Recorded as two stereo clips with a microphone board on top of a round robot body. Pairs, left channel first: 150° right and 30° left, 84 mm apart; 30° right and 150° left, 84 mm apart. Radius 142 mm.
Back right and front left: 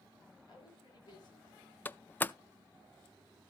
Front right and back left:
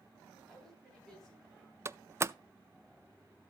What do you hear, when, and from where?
0.5 s a woman speaking: 115° right, 9.5 m; by 1.8 s 110° right, 10 m
1.9 s a door slam: 160° left, 0.7 m